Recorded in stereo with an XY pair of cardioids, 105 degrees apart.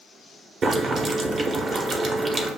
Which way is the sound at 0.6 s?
45° right.